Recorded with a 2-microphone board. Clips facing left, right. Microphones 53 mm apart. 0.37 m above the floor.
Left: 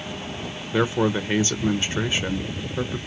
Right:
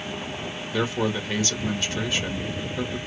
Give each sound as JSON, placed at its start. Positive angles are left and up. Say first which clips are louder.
{"t": 0.7, "sound": "a man speaking", "louder": "left 4 dB", "side_deg": 25, "distance_m": 0.8}